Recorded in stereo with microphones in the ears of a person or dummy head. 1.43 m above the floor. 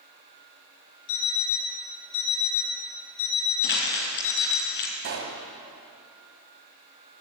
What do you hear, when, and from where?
1.1 s an alarm clock: 70° left (ahead or behind), 6 m
3.6 s crumpling: 60° left (ahead or behind), 3 m
5.0 s a pop: 50° right (ahead or behind), 2.0 m